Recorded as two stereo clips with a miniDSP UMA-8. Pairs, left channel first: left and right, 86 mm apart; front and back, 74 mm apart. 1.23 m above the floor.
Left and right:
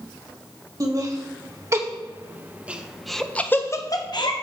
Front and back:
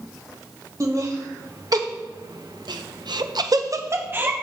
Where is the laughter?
140° right, 2.5 m; by 4.3 s 115° left, 1.1 m.